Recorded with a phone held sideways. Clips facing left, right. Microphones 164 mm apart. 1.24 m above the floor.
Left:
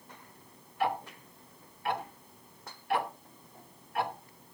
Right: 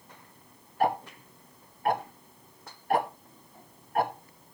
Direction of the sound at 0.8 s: 45° right (ahead or behind).